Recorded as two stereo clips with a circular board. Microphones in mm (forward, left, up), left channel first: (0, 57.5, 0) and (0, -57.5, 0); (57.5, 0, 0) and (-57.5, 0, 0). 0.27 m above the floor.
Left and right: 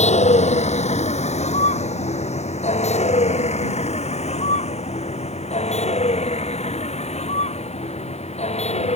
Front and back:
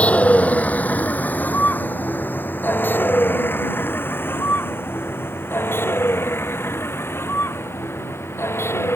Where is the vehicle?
80° left; by 9.0 s 70° left.